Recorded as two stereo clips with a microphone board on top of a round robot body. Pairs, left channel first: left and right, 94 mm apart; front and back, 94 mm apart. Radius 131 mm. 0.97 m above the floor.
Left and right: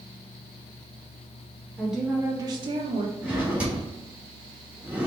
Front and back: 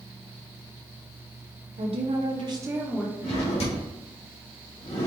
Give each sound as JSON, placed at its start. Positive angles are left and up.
{"t": 1.8, "sound": "a woman speaking", "azimuth_deg": 180, "distance_m": 1.2}
{"t": 3.2, "sound": "a drawer", "azimuth_deg": -15, "distance_m": 1.5}